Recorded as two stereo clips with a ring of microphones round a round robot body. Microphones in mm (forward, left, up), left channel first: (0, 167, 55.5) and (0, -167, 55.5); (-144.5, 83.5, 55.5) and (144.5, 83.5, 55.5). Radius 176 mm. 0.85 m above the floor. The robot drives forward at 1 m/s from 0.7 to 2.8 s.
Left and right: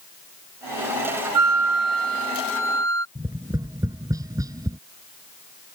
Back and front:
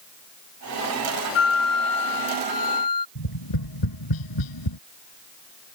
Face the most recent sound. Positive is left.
turn(degrees=-170)